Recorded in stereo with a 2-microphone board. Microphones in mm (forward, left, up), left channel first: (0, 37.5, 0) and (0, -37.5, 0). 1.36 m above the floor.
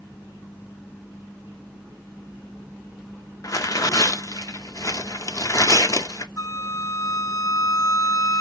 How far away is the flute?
About 0.6 m.